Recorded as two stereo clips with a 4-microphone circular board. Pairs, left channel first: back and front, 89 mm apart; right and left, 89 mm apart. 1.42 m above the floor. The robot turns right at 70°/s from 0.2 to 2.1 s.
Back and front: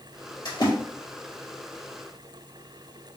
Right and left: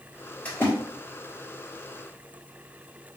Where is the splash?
165° right, 1.7 m; by 0.7 s 145° right, 1.7 m.